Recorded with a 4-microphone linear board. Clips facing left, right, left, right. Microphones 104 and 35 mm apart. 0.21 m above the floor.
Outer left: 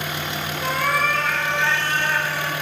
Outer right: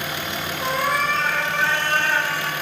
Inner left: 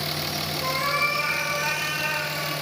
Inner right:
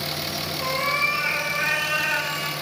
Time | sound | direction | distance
0.6 | a cat meowing | 20° right (ahead or behind) | 1.8 m